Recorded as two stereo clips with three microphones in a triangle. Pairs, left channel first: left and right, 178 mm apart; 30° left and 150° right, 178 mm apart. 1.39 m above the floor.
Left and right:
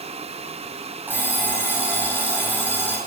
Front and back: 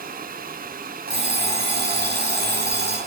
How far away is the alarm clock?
About 5 m.